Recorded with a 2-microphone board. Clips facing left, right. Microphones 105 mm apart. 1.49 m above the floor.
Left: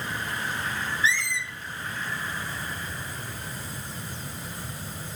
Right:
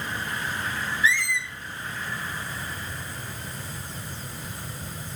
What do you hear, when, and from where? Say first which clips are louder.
1.0 s a squeak: right 3 dB; 25° left (ahead or behind), 0.7 m